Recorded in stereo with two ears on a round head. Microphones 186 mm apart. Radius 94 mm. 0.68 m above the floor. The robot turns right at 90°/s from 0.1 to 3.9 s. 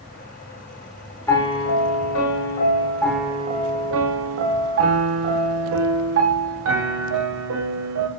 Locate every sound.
1.3 s a piano: 15° left, 0.5 m; by 8.1 s 110° right, 0.5 m